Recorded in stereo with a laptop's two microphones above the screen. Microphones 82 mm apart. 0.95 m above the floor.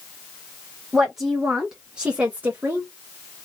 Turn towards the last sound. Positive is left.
turn(degrees=-30)  # may be behind; listen again after turning